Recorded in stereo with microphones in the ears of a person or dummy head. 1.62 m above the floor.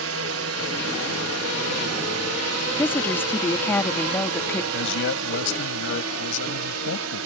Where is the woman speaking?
20° left (ahead or behind).